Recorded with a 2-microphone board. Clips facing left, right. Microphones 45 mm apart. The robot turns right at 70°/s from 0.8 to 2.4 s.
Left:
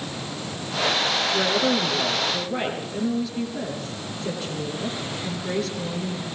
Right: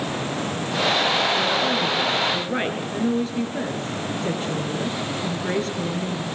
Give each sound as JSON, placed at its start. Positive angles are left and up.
{"t": 1.3, "sound": "a woman speaking", "azimuth_deg": 145, "distance_m": 4.5}